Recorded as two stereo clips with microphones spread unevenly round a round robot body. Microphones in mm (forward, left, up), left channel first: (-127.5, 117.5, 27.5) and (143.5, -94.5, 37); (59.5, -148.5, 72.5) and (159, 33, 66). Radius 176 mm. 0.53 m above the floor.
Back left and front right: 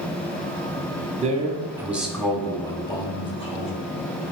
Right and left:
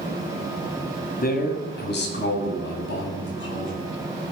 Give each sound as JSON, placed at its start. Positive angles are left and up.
{"t": 1.2, "sound": "a man speaking", "azimuth_deg": -100, "distance_m": 1.3}